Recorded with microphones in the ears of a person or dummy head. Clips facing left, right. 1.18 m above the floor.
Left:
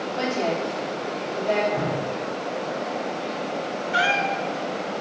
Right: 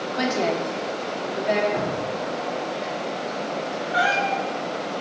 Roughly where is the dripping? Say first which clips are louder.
Even; right.